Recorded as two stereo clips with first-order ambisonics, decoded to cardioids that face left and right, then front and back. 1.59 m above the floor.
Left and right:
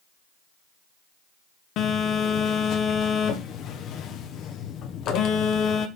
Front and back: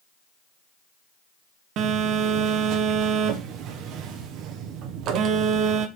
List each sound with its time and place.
1.8 s a phone buzzing: 135° left, 1.1 m